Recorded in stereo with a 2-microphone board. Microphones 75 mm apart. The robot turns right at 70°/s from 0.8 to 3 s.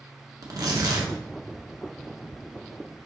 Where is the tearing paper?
55° right (ahead or behind), 1.1 m.